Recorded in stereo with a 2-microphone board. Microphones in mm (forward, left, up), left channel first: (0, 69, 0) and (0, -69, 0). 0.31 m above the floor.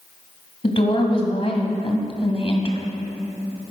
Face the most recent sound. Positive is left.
turn(degrees=45)  # may be behind; listen again after turning